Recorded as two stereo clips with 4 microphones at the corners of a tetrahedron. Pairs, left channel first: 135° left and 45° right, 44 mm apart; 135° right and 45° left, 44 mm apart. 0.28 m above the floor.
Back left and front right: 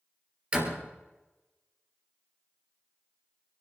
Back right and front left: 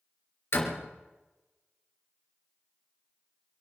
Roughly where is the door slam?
Right.